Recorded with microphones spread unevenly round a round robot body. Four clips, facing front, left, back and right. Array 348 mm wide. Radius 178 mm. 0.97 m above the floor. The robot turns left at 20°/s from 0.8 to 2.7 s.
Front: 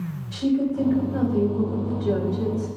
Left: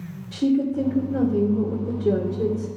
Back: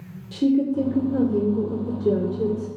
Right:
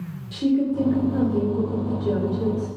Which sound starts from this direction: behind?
A woman speaking, at 0.3 s.